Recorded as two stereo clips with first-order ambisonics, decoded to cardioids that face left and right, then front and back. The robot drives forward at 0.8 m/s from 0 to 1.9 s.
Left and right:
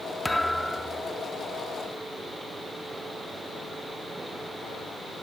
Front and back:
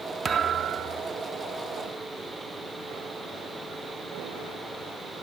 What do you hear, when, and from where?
0.2 s a thud: 165° left; by 1.2 s 175° left